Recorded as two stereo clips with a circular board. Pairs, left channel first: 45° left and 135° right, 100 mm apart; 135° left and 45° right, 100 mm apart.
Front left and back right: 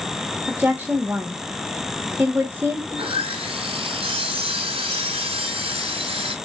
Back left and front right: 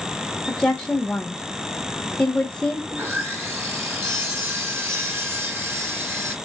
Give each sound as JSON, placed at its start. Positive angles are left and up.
{"t": 0.5, "sound": "a woman speaking", "azimuth_deg": -165, "distance_m": 1.0}
{"t": 2.9, "sound": "sawing", "azimuth_deg": -115, "distance_m": 2.0}